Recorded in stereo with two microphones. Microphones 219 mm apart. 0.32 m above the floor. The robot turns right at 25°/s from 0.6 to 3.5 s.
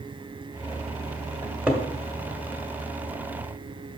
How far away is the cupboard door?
About 1.3 m.